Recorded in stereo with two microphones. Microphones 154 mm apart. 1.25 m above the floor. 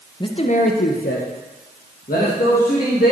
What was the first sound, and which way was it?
A man speaking, 30° left (ahead or behind).